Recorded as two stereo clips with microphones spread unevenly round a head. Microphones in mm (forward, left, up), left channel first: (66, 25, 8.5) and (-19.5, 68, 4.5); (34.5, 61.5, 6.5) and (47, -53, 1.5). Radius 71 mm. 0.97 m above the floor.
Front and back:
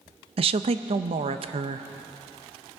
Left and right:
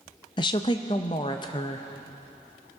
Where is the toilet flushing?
I don't hear a toilet flushing.